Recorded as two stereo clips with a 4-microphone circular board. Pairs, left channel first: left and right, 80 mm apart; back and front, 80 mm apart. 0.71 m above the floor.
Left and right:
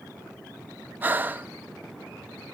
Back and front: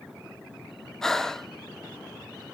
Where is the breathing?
105° right, 0.5 m.